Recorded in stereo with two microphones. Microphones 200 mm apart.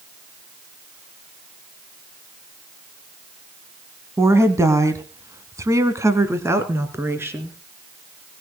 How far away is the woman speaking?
About 1.7 m.